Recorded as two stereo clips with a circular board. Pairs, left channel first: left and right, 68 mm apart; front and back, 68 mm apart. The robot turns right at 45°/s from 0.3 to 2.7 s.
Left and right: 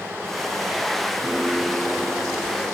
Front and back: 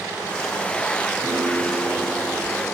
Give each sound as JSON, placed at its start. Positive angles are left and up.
{"t": 1.2, "sound": "a piano", "azimuth_deg": -175, "distance_m": 9.0}